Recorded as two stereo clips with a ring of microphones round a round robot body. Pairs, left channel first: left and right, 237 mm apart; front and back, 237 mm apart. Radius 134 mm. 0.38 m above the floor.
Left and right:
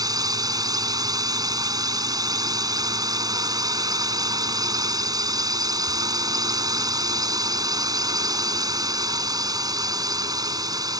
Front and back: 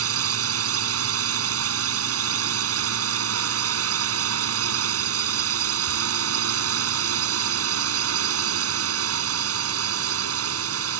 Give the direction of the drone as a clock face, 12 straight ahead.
5 o'clock.